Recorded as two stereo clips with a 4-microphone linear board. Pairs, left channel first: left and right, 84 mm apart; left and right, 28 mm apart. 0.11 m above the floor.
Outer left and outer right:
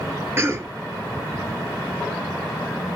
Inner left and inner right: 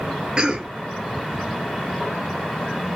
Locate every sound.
0.4 s a cough: 30° right (ahead or behind), 1.9 m